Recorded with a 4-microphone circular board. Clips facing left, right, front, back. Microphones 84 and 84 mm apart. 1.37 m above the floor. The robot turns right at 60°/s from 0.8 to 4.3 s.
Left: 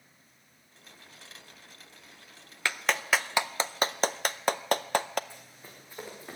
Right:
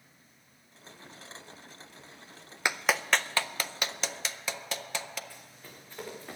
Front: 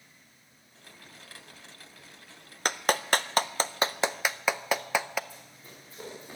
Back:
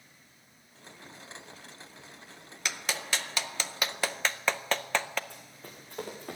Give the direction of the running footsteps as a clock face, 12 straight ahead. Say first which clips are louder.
Even, back 2 dB; 7 o'clock.